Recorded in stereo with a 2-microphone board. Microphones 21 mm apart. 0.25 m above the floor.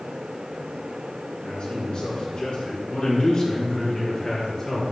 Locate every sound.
1.4 s a man speaking: 65° left (ahead or behind), 3 m; by 4.8 s 30° left (ahead or behind), 4 m